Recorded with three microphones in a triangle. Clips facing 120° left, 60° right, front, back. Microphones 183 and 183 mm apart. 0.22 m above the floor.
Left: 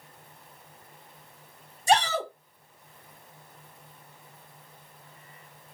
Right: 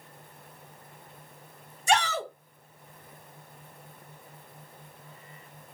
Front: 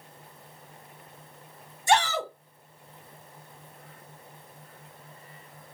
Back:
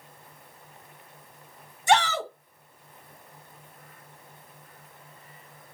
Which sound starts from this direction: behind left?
A shout, at 1.9 s.